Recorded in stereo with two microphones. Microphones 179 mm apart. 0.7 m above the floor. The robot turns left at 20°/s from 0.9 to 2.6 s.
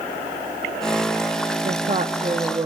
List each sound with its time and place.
1.6 s a woman speaking: 40° right (ahead or behind), 0.9 m; by 2.7 s 30° right (ahead or behind), 0.9 m